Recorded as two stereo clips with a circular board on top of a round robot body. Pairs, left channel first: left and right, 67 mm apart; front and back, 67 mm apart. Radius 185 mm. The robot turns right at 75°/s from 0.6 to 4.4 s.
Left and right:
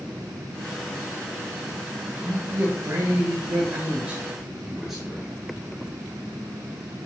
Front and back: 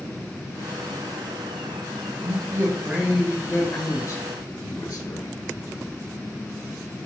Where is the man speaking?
165° right, 1.5 m; by 5.3 s straight ahead, 1.5 m.